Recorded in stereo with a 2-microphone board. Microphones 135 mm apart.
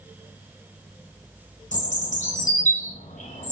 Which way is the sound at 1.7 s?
65° left (ahead or behind).